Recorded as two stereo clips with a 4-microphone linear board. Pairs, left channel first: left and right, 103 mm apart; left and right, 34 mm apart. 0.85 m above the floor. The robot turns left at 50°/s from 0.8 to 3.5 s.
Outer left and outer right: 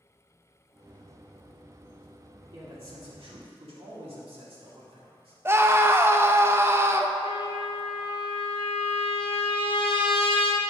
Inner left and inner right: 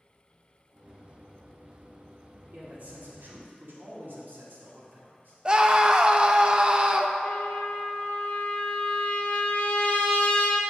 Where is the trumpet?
60° left (ahead or behind), 1.1 m.